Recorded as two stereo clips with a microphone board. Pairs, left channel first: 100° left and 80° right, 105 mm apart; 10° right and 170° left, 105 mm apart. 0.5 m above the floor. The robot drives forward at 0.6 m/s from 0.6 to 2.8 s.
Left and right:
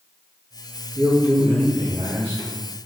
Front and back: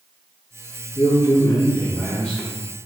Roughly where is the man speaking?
Ahead right.